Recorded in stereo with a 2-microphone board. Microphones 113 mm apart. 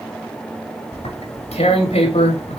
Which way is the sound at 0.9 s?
85° left.